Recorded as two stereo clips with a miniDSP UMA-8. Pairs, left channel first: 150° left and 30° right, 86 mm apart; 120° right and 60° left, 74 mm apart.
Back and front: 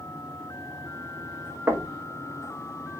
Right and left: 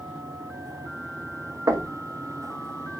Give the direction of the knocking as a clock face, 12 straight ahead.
11 o'clock.